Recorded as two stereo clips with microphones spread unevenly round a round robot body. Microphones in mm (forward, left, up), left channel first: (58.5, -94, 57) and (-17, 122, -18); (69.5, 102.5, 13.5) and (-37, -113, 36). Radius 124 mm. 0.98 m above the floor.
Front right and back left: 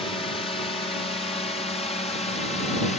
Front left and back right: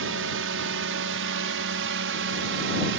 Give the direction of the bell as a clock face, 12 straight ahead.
I don't hear a bell.